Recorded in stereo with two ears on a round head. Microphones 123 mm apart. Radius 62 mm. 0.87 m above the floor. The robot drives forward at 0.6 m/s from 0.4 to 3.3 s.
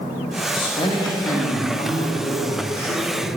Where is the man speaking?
40° left (ahead or behind), 1.1 m; by 3.3 s 15° left (ahead or behind), 2.5 m.